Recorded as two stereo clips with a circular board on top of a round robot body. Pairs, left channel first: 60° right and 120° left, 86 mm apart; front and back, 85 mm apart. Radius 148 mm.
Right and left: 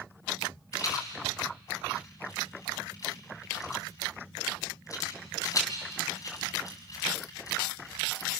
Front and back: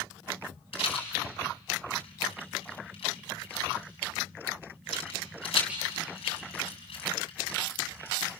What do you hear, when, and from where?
0.7 s a rattle: 5° right, 3 m